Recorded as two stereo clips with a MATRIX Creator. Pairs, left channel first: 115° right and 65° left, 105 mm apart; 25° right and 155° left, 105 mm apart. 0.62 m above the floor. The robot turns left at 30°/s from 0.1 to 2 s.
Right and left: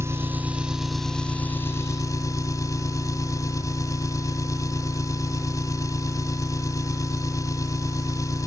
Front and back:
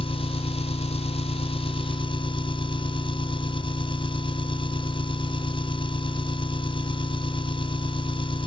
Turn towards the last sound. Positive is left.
turn(degrees=-55)